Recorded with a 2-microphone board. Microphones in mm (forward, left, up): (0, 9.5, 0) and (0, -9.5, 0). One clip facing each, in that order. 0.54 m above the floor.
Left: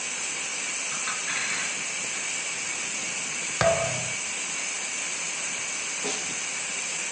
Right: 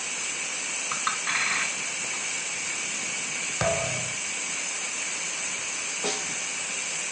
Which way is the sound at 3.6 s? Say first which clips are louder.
Left 4 dB; 20° left (ahead or behind).